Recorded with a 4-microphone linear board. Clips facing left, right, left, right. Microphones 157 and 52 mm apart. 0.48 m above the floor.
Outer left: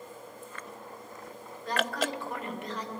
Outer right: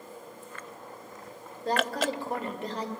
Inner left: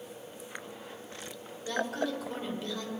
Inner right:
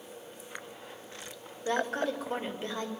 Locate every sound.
1.6 s a woman speaking: 35° right (ahead or behind), 2 m